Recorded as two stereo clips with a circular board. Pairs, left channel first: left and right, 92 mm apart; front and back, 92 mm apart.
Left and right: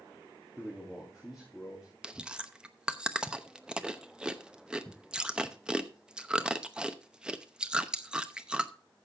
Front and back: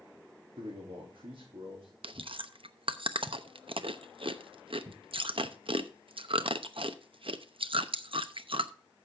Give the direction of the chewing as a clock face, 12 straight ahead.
6 o'clock.